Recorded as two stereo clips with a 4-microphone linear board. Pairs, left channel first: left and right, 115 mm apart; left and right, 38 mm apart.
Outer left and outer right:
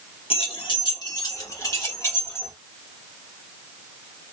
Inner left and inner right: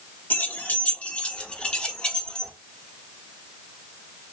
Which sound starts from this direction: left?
Keys jangling, at 0.3 s.